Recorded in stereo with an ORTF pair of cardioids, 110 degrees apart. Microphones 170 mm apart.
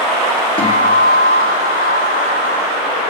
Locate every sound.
0.6 s a guitar: 25° left, 2.5 m